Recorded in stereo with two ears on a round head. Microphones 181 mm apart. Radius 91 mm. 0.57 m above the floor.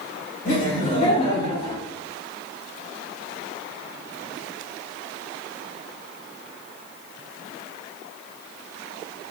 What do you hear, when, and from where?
0.5 s laughter: 40° left (ahead or behind), 1.9 m; by 1.8 s 25° left (ahead or behind), 1.3 m